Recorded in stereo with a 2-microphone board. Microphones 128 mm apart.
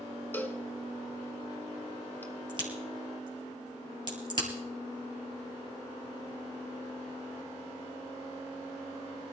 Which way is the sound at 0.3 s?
15° left (ahead or behind).